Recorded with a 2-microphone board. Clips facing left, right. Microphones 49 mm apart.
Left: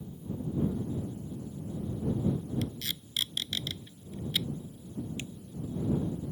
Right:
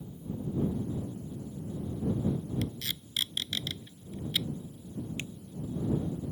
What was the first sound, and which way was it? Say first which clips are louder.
Tape being pulled: even; 10° right (ahead or behind).